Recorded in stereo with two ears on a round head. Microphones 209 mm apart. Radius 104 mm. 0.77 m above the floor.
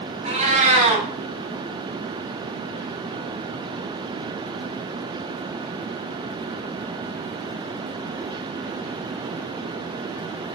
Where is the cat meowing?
30° right (ahead or behind), 0.6 m.